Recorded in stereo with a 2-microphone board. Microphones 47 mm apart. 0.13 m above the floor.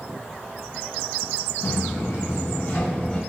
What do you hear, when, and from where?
1.6 s footsteps: 80° left, 1.8 m; by 3.2 s 30° left (ahead or behind), 1.7 m